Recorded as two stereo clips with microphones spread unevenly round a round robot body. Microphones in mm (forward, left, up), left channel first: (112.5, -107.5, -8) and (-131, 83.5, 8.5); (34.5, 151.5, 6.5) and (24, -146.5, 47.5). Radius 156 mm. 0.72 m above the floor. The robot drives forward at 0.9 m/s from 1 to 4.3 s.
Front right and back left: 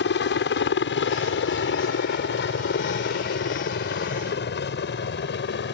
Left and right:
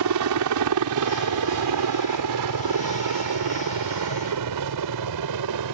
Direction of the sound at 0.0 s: 85° right.